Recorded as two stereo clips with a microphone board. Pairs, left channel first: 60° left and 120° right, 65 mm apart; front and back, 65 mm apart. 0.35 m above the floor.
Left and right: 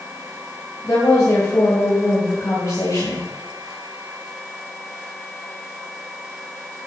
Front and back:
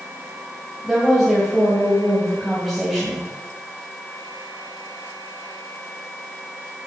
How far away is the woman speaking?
About 2.5 m.